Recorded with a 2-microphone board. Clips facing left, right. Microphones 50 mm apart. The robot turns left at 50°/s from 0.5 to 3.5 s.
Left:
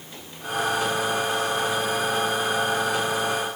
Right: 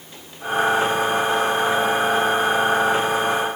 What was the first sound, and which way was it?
Only background noise.